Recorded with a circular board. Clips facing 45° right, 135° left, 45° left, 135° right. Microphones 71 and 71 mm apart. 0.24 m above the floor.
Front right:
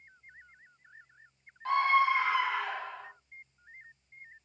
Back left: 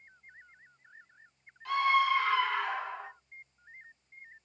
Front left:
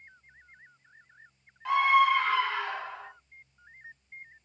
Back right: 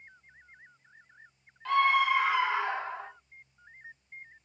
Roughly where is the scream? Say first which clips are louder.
Front right 1 dB, front left 2 dB; ahead right.